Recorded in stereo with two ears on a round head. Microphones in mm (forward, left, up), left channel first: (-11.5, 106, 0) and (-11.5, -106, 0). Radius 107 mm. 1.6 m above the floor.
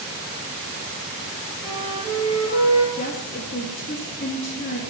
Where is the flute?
25° left (ahead or behind), 6.5 m.